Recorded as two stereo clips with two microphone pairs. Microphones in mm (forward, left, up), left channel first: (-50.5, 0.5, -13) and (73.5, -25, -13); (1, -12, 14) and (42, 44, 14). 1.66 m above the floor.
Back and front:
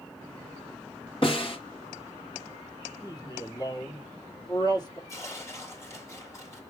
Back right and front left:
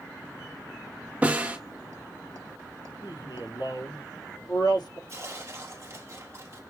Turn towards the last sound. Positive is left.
turn(degrees=100)